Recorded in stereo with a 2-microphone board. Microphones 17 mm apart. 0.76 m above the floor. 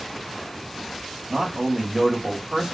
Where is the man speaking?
20° right (ahead or behind), 1.2 m.